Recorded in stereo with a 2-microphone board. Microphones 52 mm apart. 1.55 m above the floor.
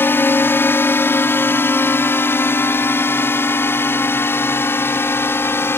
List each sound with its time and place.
0.0 s a drone: 50° left (ahead or behind)